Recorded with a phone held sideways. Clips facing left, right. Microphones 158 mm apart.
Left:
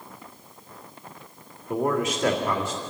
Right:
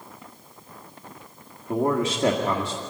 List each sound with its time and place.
1.7 s a man speaking: 30° right (ahead or behind), 2.0 m